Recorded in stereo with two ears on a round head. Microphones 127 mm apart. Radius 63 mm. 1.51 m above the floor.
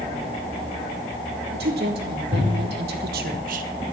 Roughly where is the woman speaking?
Right.